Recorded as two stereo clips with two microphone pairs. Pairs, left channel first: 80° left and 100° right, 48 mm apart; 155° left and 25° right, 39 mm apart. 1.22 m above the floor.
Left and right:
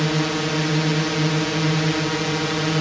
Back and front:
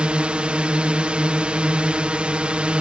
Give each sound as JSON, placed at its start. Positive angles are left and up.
{"t": 0.0, "sound": "a drone", "azimuth_deg": -10}